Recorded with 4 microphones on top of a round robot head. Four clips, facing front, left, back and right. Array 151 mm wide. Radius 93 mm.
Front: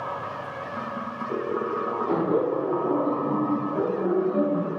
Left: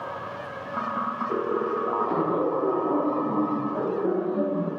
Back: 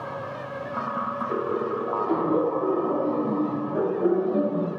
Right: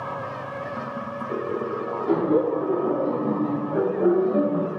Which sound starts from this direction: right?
Laughter, at 2.1 s.